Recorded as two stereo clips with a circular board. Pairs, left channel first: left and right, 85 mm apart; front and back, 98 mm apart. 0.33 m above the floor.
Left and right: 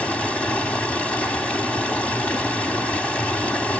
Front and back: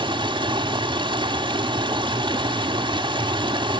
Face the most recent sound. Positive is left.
turn(degrees=165)